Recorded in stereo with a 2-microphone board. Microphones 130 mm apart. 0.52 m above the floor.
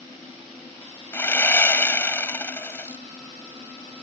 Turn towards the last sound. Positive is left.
turn(degrees=20)  # may be behind; listen again after turning